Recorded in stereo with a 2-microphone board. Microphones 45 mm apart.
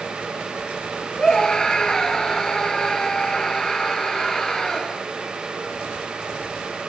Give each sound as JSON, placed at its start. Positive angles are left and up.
{"t": 1.2, "sound": "a scream", "side_deg": 15}